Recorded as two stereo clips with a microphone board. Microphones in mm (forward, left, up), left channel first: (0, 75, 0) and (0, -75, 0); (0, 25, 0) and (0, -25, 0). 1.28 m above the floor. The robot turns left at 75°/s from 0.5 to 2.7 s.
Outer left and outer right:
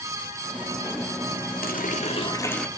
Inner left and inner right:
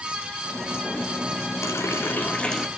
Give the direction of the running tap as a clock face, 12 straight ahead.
9 o'clock.